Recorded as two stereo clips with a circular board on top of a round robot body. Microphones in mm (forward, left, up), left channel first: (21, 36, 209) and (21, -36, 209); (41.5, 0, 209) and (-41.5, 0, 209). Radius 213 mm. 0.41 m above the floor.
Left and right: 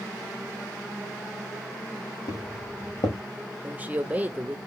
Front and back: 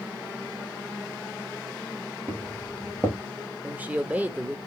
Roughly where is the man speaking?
Behind right.